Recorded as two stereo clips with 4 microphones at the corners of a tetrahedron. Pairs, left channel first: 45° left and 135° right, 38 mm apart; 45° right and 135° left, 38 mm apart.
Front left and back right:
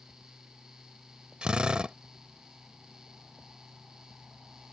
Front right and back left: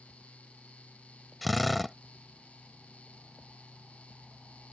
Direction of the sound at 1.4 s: 130° right.